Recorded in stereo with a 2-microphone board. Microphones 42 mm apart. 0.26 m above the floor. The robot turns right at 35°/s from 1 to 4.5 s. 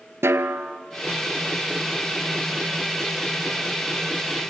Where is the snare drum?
90° right, 0.9 m.